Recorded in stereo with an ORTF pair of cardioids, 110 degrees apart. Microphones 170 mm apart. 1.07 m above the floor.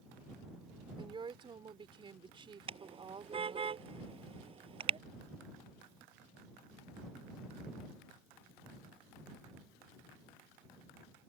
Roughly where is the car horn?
Ahead right.